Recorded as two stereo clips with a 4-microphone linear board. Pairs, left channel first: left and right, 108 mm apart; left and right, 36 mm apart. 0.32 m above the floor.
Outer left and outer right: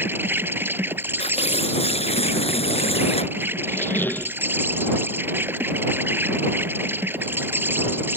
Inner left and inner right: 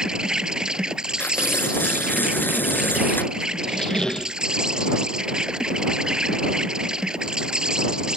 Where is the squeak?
20° left (ahead or behind).